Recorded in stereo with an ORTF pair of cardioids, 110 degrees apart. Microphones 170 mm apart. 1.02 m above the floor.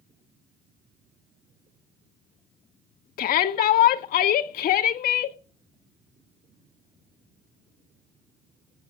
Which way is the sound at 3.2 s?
65° left.